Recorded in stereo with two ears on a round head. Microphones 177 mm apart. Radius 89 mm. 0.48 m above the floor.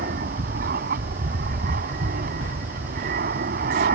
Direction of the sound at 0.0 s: 45° right (ahead or behind).